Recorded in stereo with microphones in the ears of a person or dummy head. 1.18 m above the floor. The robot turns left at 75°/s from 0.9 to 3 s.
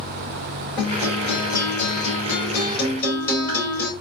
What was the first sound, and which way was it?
A guitar, straight behind.